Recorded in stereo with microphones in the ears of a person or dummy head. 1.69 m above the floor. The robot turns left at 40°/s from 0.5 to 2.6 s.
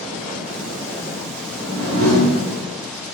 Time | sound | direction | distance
1.5 | a whoosh | 75° right | 2.5 m